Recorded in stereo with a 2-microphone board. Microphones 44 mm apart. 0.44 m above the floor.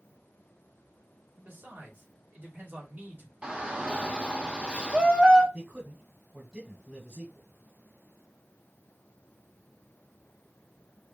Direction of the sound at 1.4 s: 50° right (ahead or behind).